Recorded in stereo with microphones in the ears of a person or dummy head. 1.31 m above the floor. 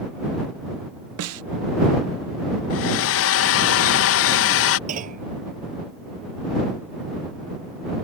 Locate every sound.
1.2 s a snare drum: 75° right (ahead or behind)
2.7 s a hair dryer: 70° left (ahead or behind)
4.9 s a clunk: 45° right (ahead or behind)